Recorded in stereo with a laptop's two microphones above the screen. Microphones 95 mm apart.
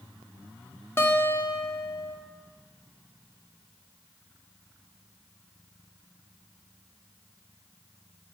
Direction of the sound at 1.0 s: 25° left (ahead or behind).